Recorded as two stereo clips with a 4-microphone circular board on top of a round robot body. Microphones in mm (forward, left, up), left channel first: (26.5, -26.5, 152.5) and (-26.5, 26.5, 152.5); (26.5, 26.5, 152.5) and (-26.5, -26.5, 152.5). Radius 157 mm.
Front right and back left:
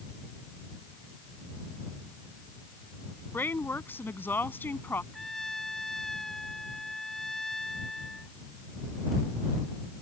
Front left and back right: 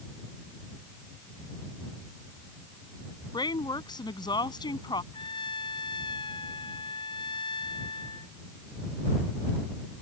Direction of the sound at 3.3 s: 20° left.